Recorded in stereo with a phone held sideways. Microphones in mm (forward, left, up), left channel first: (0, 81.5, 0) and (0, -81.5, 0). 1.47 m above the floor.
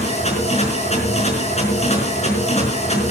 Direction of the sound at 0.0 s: 45° left (ahead or behind).